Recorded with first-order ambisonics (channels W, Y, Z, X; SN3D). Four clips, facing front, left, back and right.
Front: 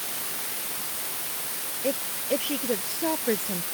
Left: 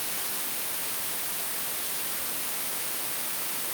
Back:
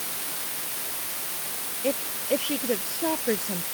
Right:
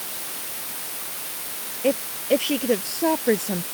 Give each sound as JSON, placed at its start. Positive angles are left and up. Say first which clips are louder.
{"t": 1.8, "sound": "a woman speaking", "louder": "right 14 dB, back 1 dB", "azimuth_deg": -95}